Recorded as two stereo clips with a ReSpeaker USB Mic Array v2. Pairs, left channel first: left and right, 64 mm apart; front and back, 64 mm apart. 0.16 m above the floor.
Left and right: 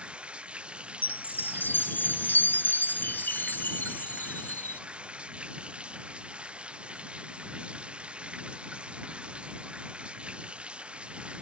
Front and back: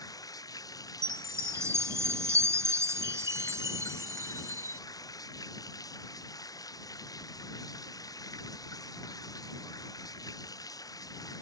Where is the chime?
145° left.